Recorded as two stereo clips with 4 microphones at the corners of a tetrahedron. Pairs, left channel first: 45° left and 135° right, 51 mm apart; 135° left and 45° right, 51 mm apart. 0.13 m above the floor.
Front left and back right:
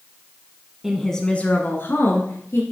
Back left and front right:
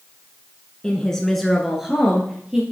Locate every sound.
0.8 s a woman speaking: 160° left, 1.1 m; by 2.6 s 30° left, 2.5 m